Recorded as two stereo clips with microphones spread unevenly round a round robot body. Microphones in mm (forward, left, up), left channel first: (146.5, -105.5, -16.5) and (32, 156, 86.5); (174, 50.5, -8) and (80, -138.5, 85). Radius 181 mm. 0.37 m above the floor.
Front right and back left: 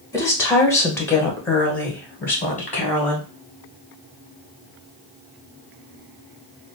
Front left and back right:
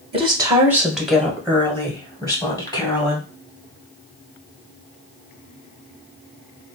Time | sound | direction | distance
0.1 | a woman speaking | 30° right | 1.1 m